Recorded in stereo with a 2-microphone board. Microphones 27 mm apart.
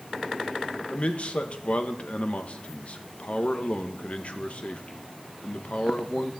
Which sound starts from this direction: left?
A man speaking, at 0.9 s.